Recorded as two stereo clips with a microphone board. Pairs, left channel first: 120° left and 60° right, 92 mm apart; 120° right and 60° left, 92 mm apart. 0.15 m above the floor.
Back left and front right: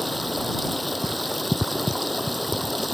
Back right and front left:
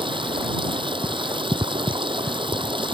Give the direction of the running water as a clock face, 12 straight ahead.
11 o'clock.